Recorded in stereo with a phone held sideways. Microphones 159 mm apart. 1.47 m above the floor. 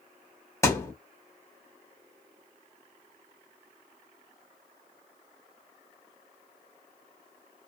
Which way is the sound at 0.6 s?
20° left (ahead or behind).